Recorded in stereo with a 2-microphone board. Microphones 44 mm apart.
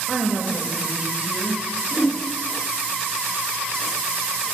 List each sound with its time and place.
0.1 s a woman speaking: 5° right (ahead or behind), 0.9 m; by 1.6 s 30° right (ahead or behind), 1.4 m
1.9 s a whoosh: 5° left (ahead or behind), 0.6 m